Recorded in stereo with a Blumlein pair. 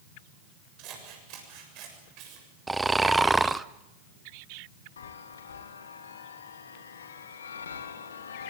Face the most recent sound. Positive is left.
turn(degrees=65)